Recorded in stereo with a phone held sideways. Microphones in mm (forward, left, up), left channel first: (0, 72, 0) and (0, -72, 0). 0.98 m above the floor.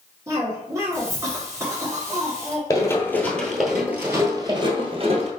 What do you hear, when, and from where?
0.3 s a cough: 20° right (ahead or behind), 0.9 m
2.7 s running footsteps: 20° left (ahead or behind), 1.2 m; by 5.3 s 45° right (ahead or behind), 1.3 m